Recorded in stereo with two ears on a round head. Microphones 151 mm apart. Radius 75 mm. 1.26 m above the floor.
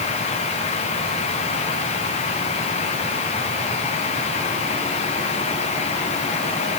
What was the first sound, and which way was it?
Only background noise.